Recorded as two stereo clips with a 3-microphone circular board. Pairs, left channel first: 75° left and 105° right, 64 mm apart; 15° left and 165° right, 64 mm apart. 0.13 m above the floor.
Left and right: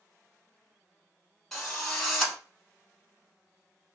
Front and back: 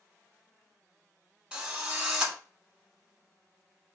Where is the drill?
150° left, 1.2 m.